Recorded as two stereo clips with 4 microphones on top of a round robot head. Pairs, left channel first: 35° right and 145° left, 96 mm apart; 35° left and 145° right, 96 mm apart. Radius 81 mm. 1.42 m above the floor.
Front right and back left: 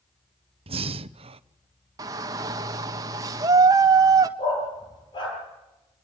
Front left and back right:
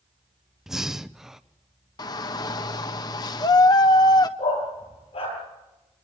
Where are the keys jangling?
No keys jangling in this recording.